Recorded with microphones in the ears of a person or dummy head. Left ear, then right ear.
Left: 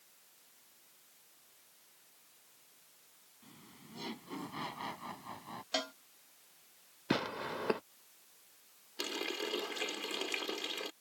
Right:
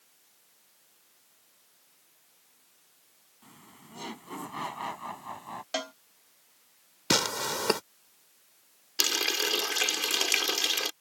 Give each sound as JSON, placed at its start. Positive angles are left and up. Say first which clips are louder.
{"t": 3.4, "sound": "laughter", "louder": "right 5 dB", "side_deg": -30}
{"t": 5.7, "sound": "a cowbell", "louder": "right 2 dB", "side_deg": -15}
{"t": 7.1, "sound": "tearing paper", "louder": "right 9 dB", "side_deg": -80}
{"t": 9.0, "sound": "a running tap", "louder": "right 11 dB", "side_deg": -55}